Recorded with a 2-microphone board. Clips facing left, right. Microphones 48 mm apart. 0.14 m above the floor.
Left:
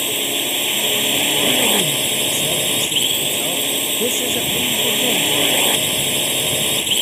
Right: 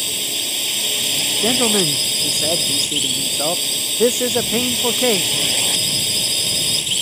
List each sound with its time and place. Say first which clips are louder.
0.0 s a drone: left 4 dB; 25° left (ahead or behind)
1.4 s a man speaking: right 3 dB; 35° right (ahead or behind)